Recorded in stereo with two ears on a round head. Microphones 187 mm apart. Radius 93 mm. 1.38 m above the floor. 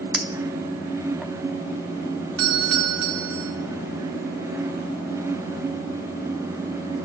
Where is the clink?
Centre (ahead or behind), 2.5 m.